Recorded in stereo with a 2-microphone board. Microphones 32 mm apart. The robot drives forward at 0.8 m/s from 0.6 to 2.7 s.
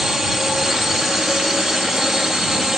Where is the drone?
15° right (ahead or behind).